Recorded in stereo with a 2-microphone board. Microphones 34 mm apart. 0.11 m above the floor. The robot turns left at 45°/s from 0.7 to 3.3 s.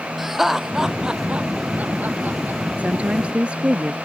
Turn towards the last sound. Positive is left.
turn(degrees=-35)  # may be behind; listen again after turning